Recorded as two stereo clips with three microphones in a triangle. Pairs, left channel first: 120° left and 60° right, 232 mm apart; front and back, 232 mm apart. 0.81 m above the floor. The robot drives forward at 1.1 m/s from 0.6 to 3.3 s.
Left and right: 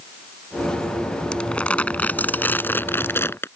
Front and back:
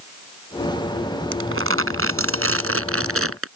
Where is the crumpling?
155° right; by 3.5 s 160° right.